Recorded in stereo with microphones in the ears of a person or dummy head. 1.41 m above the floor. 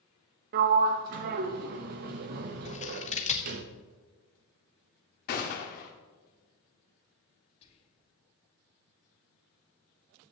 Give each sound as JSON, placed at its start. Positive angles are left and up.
{"t": 0.5, "sound": "a sliding door", "side_deg": -50, "distance_m": 0.9}
{"t": 2.6, "sound": "scissors", "side_deg": 35, "distance_m": 1.0}
{"t": 5.3, "sound": "a gunshot", "side_deg": 40, "distance_m": 1.4}
{"t": 7.6, "sound": "whispering", "side_deg": 30, "distance_m": 2.0}